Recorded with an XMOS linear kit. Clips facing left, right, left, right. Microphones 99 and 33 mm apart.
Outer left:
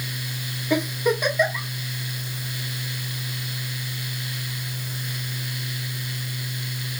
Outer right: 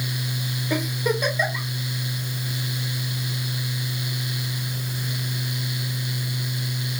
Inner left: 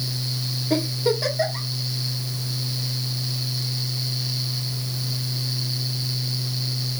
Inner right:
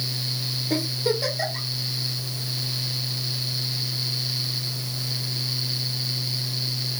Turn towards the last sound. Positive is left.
turn(degrees=10)  # may be behind; listen again after turning